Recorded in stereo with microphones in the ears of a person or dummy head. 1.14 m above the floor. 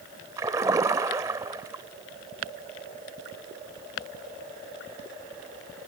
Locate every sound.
0.4 s a splash: 15° right (ahead or behind), 0.9 m